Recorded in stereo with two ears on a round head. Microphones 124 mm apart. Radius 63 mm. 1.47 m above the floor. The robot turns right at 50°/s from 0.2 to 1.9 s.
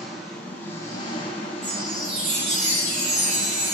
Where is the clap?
No clap in this recording.